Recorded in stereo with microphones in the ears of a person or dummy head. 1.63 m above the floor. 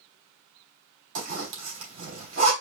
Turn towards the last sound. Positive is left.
turn(degrees=-70)  # may be behind; listen again after turning